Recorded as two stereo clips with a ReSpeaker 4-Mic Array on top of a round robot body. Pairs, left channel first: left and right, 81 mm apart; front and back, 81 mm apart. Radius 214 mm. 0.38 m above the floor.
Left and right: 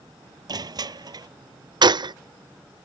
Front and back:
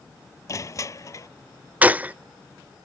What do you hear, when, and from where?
0.5 s crushing: 50° right
1.8 s a gunshot: 110° right